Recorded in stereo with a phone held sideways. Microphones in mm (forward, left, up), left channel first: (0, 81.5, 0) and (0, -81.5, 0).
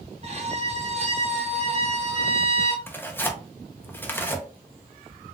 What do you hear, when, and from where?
0.2 s a violin: 40° right (ahead or behind), 0.6 m
2.9 s tearing paper: 10° left (ahead or behind), 0.6 m